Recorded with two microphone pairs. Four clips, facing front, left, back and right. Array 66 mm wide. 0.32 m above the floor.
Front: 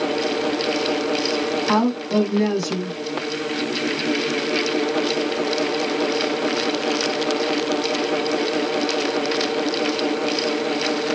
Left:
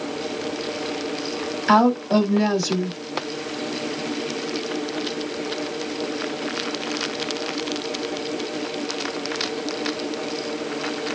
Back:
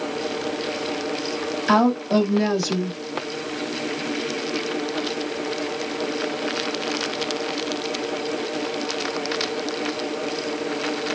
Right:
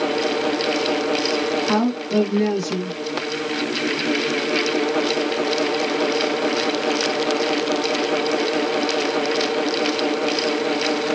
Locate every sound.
1.7 s a woman speaking: 105° left, 2.5 m